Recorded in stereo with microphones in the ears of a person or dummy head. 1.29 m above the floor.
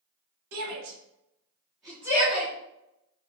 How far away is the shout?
About 1.4 m.